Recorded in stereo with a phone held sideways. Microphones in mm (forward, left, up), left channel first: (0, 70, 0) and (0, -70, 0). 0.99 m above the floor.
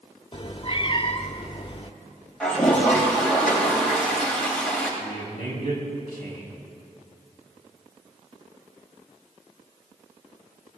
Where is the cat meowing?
40° left (ahead or behind), 0.9 m.